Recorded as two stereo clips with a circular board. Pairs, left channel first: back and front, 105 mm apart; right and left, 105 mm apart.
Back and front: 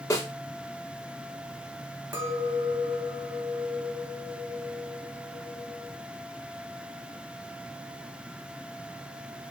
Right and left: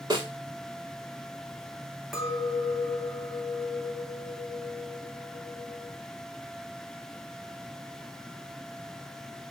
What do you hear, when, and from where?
0.1 s a snare drum: 125° left, 0.9 m
2.1 s a clink: 5° left, 0.7 m